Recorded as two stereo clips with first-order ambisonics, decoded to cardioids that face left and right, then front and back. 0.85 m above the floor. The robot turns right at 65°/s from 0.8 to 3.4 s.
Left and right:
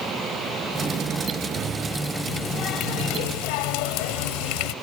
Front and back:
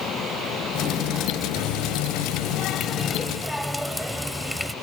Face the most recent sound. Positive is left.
turn(degrees=90)